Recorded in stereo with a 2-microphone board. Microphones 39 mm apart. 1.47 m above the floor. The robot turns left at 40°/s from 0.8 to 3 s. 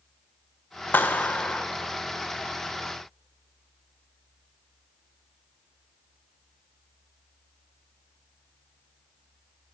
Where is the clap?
60° left (ahead or behind), 0.9 m; by 1.6 s 30° left (ahead or behind), 0.9 m.